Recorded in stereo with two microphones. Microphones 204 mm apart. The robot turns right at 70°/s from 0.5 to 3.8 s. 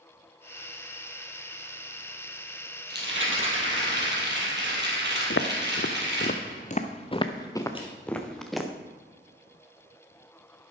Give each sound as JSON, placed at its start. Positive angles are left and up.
{"t": 2.9, "sound": "a rattle", "azimuth_deg": -125, "distance_m": 4.0}
{"t": 5.3, "sound": "footsteps", "side_deg": 75, "distance_m": 1.1}
{"t": 7.8, "sound": "crushing", "side_deg": 25, "distance_m": 3.0}